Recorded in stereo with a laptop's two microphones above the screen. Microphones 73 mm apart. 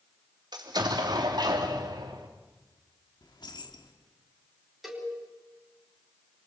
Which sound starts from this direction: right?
An explosion, at 0.5 s.